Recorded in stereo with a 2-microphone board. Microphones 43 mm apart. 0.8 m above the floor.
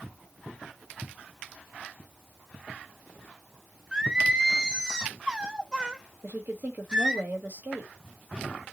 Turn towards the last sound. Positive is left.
turn(degrees=-50)  # may be behind; listen again after turning